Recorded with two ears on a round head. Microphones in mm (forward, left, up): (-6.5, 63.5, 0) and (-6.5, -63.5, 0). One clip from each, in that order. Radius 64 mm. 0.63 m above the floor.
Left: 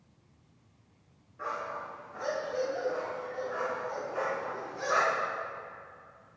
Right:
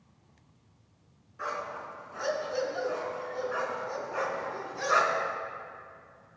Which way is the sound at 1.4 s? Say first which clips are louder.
Right 1 dB; 60° right (ahead or behind).